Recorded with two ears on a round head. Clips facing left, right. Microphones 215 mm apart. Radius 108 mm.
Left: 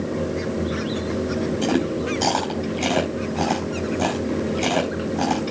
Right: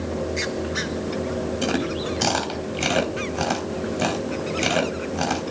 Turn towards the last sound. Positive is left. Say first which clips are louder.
# left 3 dB
turn(degrees=-15)  # may be behind; listen again after turning